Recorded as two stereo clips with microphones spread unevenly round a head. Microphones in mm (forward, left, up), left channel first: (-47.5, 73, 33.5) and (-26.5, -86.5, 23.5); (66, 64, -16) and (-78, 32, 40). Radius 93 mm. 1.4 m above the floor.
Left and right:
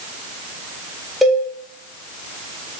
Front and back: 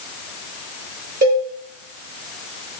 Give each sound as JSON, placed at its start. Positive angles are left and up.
{"t": 1.2, "sound": "a cowbell", "azimuth_deg": -175, "distance_m": 1.0}